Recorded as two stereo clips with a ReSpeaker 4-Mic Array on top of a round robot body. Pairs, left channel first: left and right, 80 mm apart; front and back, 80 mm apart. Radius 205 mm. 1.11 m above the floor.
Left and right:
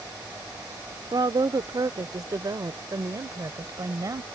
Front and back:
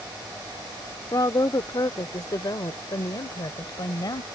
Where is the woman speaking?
50° right; by 4.2 s 40° right.